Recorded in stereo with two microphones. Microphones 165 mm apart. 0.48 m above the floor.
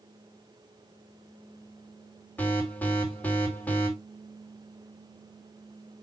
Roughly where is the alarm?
Centre.